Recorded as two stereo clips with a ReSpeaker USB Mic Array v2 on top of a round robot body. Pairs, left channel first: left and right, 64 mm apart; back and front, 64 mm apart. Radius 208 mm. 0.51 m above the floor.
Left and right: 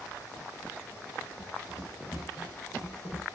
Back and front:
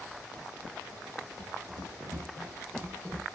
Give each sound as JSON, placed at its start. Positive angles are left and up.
{"t": 1.4, "sound": "running footsteps", "azimuth_deg": -25, "distance_m": 1.2}